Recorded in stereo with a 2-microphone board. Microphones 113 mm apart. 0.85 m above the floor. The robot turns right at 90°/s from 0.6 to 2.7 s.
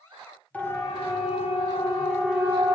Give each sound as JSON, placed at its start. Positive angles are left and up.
{"t": 0.5, "sound": "a siren", "side_deg": 15, "distance_m": 5.0}